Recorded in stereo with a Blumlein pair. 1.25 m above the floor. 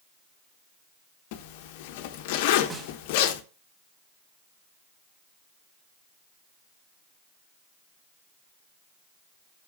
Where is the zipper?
50° left, 1.1 m.